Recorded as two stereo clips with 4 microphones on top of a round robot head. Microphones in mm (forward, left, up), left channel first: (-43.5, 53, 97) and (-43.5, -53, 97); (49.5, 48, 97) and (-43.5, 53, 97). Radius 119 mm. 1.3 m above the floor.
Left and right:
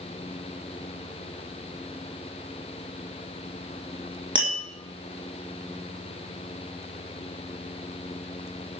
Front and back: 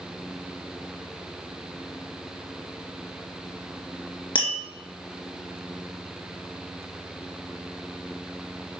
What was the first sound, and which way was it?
Tapping, 45° right.